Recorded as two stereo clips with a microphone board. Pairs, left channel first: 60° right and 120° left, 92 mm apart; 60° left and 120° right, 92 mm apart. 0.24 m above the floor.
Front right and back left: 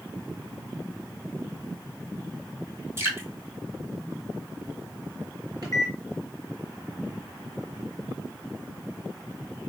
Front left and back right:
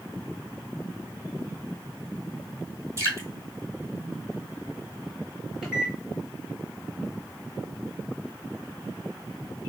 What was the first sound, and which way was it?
Dripping, 175° right.